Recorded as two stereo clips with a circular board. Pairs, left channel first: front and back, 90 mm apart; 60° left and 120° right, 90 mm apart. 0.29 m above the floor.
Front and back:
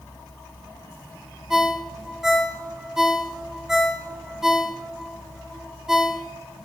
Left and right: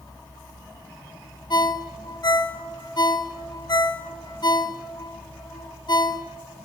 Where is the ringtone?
95° left, 1.0 m.